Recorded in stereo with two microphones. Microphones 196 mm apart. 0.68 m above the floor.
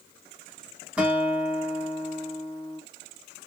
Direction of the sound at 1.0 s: 5° right (ahead or behind).